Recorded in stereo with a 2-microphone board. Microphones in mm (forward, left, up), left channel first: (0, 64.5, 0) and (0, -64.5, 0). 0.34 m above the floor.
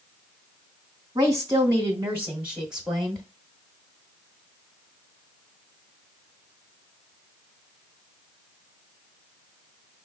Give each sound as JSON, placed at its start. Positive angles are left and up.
{"t": 1.1, "sound": "a woman speaking", "side_deg": -30, "distance_m": 1.3}